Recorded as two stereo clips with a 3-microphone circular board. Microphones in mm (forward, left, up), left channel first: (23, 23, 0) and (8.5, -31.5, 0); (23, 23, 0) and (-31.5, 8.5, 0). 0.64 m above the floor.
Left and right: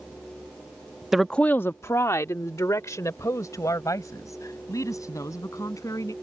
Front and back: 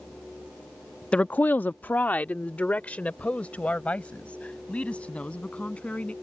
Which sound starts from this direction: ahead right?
A woman speaking, at 1.1 s.